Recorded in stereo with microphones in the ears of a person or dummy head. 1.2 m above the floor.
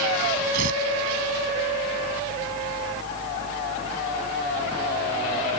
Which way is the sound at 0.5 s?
55° right (ahead or behind).